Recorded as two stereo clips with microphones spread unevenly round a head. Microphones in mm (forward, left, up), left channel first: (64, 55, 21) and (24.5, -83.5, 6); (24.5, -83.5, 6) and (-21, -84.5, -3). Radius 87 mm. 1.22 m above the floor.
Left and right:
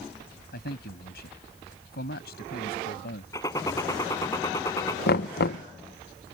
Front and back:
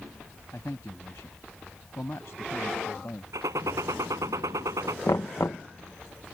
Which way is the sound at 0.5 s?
65° left.